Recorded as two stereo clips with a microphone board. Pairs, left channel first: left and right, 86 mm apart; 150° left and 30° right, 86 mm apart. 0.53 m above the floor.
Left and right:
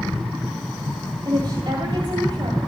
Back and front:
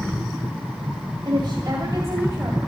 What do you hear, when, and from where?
1.2 s a woman speaking: 60° right, 2.5 m; by 2.6 s 90° right, 3 m